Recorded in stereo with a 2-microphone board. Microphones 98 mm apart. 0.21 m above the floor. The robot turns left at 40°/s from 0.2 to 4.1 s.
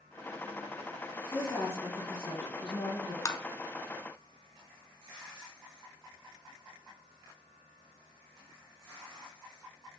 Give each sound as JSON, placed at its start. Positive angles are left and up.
{"t": 1.3, "sound": "a woman speaking", "azimuth_deg": 150, "distance_m": 2.5}
{"t": 3.2, "sound": "tapping", "side_deg": 35, "distance_m": 0.7}